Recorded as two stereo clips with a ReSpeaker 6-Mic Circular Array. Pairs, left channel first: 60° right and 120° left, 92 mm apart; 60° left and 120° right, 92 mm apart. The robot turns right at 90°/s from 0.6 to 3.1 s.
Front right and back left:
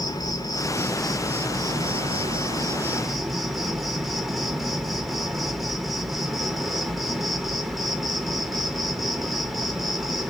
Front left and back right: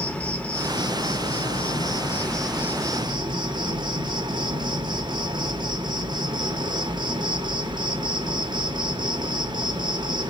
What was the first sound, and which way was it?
An insect, 15° right.